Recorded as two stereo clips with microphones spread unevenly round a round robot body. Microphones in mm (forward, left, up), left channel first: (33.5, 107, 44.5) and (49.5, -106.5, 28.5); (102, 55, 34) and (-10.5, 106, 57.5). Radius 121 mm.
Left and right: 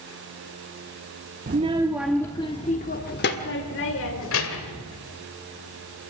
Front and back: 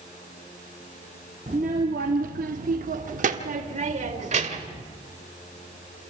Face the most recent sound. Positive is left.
turn(degrees=130)